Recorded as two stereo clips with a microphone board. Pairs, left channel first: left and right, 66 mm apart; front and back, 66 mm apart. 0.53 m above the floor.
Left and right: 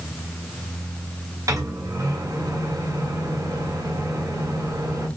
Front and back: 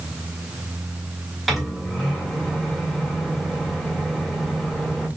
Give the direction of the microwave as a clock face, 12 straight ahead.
3 o'clock.